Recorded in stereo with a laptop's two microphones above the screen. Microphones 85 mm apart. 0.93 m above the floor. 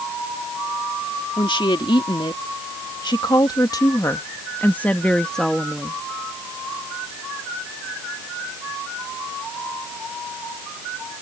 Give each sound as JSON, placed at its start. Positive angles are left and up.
{"t": 1.4, "sound": "a woman speaking", "side_deg": 70}